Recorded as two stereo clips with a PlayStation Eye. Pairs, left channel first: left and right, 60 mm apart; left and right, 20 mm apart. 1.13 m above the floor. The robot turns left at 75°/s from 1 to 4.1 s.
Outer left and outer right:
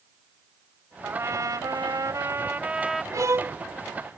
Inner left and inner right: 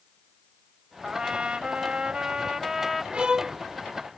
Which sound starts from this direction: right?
A violin, at 3.1 s.